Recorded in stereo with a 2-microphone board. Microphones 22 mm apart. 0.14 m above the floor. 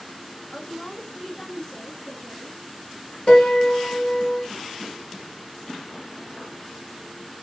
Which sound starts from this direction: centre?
A woman speaking, at 0.5 s.